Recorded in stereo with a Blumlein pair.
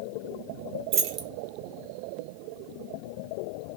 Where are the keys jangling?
35° right, 0.8 m.